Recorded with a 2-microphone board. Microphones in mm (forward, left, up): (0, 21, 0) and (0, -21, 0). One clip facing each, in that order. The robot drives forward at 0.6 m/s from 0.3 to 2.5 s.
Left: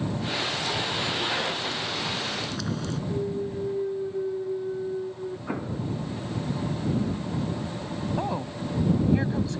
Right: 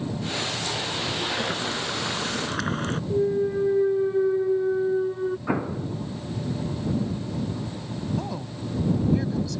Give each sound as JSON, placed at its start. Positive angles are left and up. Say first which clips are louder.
{"t": 1.4, "sound": "boiling", "louder": "right 1 dB", "side_deg": -45}
{"t": 3.1, "sound": "a clunk", "louder": "right 9 dB", "side_deg": -55}
{"t": 5.5, "sound": "an explosion", "louder": "right 4 dB", "side_deg": -25}
{"t": 8.2, "sound": "a woman speaking", "louder": "left 2 dB", "side_deg": 30}